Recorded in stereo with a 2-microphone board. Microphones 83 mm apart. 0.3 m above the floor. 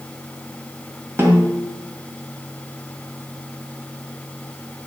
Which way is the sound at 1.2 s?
30° right (ahead or behind).